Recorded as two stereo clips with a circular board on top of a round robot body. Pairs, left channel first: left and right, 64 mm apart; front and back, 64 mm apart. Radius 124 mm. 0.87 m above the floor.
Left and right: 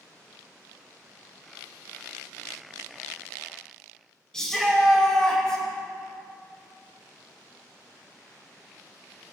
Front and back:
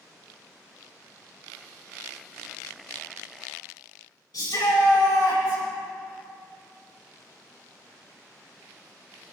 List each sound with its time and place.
4.3 s a shout: 10° left, 6 m